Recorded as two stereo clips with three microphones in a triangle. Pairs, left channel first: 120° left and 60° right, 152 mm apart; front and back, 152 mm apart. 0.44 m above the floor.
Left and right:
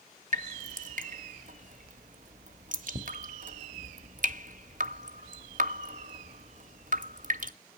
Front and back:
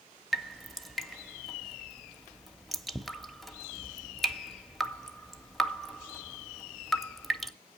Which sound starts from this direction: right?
Dripping, at 0.3 s.